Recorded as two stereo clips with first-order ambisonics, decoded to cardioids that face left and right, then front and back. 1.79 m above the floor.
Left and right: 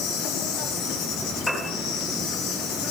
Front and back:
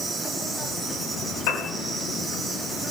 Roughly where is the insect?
Left.